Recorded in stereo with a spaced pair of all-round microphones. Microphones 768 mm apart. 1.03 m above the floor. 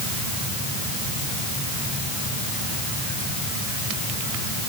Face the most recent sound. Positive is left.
No sound to turn to.